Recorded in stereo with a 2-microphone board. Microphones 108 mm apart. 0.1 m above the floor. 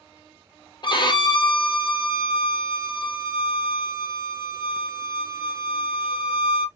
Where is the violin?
45° left (ahead or behind), 0.7 m.